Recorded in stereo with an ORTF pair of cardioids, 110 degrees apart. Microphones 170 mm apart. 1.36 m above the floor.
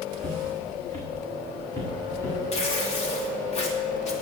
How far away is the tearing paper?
About 3 m.